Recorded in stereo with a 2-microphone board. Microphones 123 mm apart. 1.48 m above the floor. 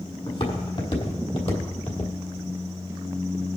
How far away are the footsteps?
About 3.5 m.